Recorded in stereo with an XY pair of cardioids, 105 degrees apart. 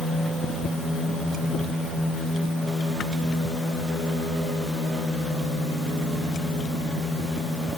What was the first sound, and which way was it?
Only background noise.